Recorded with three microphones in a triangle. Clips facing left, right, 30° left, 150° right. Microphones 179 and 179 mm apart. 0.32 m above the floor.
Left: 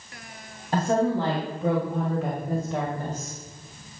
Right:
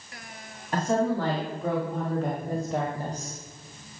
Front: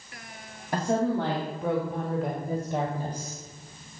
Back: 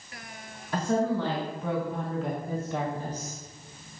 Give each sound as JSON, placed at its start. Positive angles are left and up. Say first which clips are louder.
{"t": 0.7, "sound": "a woman speaking", "louder": "left 2 dB, front 1 dB", "azimuth_deg": 35, "distance_m": 2.0}